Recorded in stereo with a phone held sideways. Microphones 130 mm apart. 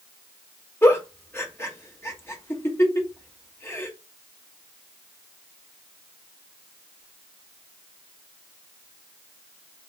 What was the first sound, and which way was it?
A giggle, 20° left (ahead or behind).